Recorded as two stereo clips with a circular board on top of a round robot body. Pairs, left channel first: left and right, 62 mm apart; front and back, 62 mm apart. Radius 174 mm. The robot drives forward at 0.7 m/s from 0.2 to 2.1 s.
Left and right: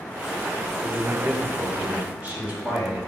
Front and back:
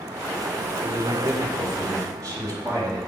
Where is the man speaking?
145° right, 2.5 m; by 3.0 s 155° right, 3.5 m.